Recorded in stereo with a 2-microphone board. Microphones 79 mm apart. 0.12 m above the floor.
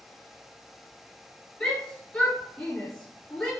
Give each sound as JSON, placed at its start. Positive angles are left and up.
{"t": 1.6, "sound": "a shout", "side_deg": 10, "distance_m": 1.8}